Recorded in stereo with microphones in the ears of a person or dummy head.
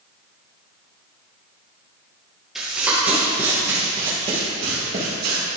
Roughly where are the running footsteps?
Centre.